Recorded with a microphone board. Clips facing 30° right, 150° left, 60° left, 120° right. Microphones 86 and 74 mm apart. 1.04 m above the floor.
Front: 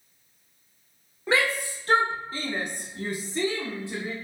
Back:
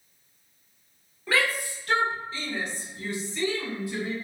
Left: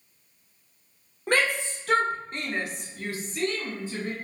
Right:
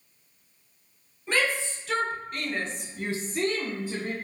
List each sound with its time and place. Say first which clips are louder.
1.3 s a shout: front 2 dB, left 2 dB; 35° left, 1.1 m; by 4.1 s 95° right, 1.0 m